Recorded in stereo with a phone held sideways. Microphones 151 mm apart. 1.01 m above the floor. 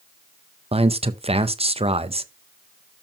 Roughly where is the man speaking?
Right.